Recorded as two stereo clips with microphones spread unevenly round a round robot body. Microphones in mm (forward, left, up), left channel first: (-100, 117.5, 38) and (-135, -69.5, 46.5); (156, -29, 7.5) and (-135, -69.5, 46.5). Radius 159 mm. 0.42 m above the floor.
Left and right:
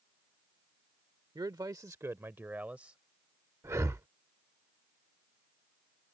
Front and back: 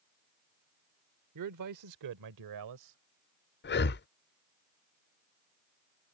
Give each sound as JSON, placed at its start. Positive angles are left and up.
{"t": 1.4, "sound": "a man speaking", "azimuth_deg": -165}
{"t": 3.6, "sound": "breathing", "azimuth_deg": -25}